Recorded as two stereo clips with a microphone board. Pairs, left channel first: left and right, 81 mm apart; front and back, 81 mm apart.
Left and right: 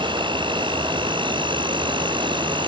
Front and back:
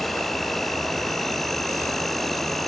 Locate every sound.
0.0 s an insect: 90° right